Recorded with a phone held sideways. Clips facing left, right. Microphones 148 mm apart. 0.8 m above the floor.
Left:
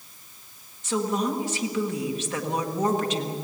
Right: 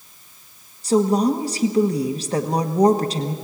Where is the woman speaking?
35° right (ahead or behind), 1.2 m.